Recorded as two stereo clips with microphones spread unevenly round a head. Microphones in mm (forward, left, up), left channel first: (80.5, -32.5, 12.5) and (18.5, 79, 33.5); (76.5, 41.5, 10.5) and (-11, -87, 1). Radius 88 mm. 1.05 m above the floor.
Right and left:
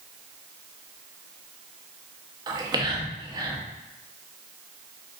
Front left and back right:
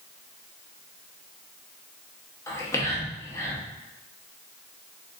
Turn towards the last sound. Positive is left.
turn(degrees=105)